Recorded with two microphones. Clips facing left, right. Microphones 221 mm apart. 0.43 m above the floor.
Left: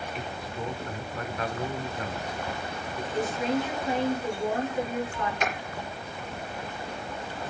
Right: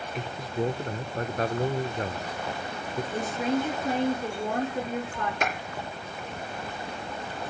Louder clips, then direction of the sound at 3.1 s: Left 1 dB; 50° right (ahead or behind).